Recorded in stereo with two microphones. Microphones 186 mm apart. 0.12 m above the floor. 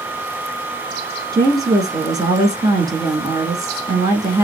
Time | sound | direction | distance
1.3 | a woman speaking | 20° right (ahead or behind) | 1.3 m